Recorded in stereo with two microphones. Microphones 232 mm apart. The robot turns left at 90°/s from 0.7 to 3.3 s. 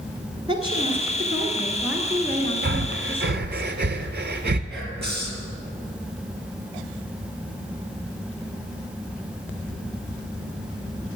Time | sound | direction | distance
0.5 | a woman speaking | 20° right (ahead or behind) | 1.4 m
2.6 | breathing | 50° right (ahead or behind) | 0.6 m
4.7 | whispering | 45° right (ahead or behind) | 2.5 m